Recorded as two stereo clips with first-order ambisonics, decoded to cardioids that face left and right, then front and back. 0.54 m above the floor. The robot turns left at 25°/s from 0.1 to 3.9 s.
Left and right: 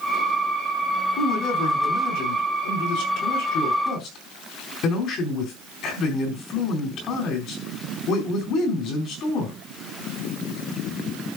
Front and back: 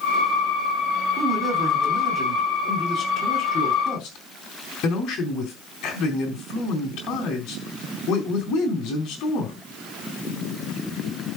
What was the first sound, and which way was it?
A man speaking, 110° left.